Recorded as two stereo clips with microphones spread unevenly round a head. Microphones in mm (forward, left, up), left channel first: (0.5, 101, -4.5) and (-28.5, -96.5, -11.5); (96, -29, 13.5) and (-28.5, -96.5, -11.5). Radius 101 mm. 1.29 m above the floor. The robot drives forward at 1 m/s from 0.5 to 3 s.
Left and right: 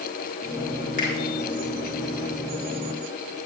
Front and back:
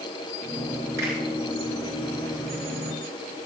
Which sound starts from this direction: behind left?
A finger snap, at 1.0 s.